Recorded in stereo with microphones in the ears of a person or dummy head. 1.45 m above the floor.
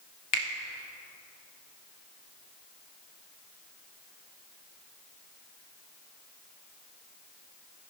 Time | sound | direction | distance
0.3 | a finger snap | 40° left (ahead or behind) | 0.7 m